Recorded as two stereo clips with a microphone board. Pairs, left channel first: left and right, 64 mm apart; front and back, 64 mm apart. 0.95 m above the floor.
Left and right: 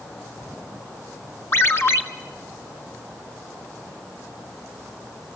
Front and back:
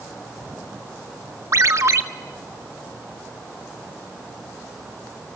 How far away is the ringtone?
About 1.3 m.